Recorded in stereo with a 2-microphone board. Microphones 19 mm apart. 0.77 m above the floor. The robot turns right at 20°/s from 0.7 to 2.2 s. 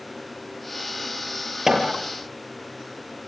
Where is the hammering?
25° right (ahead or behind), 5.5 m; by 1.9 s 20° right (ahead or behind), 5.5 m.